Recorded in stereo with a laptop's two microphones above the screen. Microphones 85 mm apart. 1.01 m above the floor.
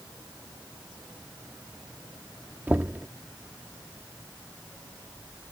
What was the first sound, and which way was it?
Knocking, 20° right (ahead or behind).